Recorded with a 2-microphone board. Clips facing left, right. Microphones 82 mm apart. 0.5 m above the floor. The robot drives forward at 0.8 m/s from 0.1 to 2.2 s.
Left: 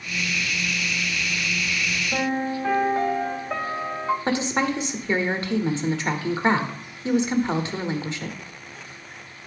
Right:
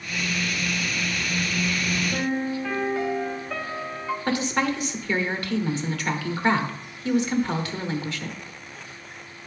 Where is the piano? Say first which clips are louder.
Left 5 dB; 35° left (ahead or behind), 0.7 m; by 4.2 s 30° left (ahead or behind), 0.8 m.